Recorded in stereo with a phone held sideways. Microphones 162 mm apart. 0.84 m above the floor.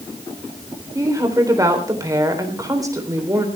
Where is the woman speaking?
20° right (ahead or behind), 3.5 m.